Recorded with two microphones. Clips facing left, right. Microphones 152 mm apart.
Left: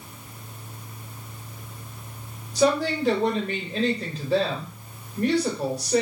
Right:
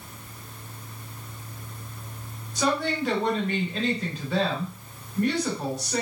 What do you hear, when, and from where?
2.5 s a woman speaking: 35° left (ahead or behind), 2.5 m